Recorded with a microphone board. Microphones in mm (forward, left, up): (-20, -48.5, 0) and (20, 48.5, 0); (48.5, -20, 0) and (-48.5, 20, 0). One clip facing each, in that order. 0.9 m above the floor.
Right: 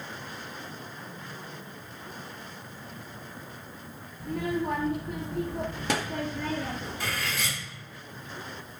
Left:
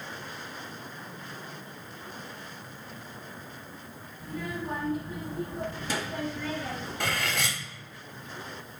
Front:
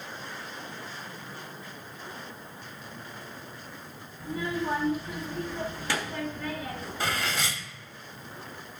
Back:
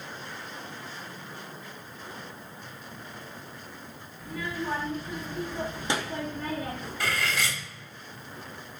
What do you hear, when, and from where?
4.2 s a child speaking: 85° right, 1.2 m; by 6.9 s 160° right, 1.1 m
7.0 s cutlery clinking: 40° left, 1.1 m